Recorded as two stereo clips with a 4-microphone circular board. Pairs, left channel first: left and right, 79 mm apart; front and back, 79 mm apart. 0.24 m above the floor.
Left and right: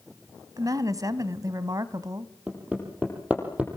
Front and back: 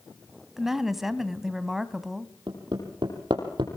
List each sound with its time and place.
0.6 s a woman speaking: 95° right, 1.5 m
2.5 s hammering: 160° right, 6 m